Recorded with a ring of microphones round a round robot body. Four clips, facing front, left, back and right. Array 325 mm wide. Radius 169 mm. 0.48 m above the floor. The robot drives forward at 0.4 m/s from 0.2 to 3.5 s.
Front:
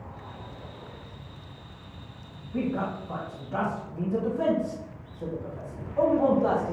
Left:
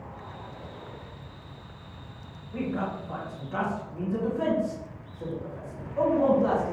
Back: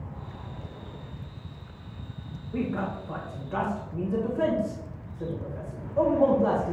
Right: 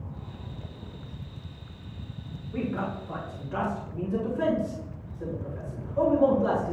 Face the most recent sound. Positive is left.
turn(degrees=-170)